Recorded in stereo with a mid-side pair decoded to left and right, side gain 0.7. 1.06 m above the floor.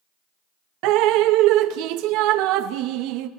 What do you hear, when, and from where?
0.8 s dripping: 65° right, 0.6 m